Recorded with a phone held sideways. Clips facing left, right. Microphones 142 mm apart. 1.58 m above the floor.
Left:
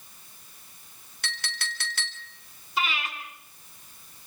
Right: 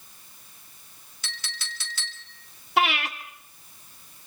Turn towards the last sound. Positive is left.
turn(degrees=-70)  # may be behind; listen again after turning